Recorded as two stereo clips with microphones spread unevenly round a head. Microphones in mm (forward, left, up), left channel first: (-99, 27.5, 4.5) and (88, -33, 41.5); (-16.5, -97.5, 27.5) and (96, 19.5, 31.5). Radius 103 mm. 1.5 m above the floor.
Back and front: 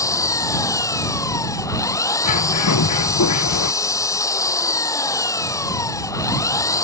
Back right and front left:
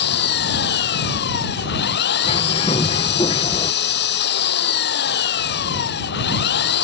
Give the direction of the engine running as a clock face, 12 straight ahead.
4 o'clock.